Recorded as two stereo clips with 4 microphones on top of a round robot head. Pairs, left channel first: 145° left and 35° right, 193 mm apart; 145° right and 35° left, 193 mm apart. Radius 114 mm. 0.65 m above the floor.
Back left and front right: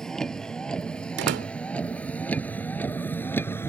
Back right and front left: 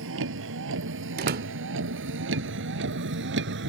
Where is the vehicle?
60° left; by 3.7 s 65° left.